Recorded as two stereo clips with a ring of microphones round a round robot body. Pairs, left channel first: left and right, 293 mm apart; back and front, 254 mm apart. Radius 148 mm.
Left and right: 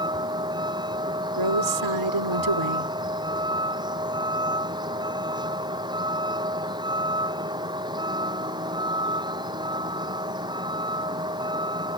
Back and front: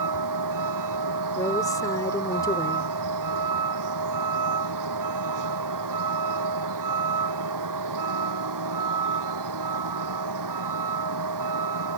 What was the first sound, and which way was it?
A vehicle, 15° right.